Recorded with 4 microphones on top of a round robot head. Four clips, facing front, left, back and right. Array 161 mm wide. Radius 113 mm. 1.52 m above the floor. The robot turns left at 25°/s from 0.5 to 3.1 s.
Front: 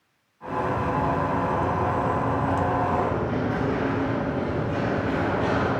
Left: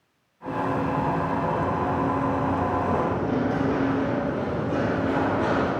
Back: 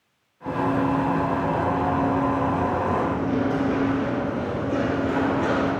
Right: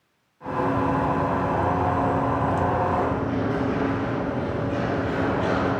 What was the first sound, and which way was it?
Running footsteps, 175° left.